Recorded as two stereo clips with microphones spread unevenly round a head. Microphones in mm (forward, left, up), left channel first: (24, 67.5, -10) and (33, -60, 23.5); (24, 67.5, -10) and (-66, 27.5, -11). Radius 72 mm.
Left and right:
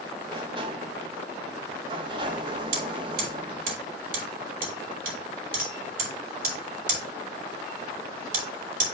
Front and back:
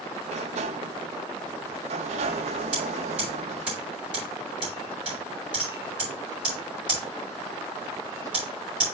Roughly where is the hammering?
Right.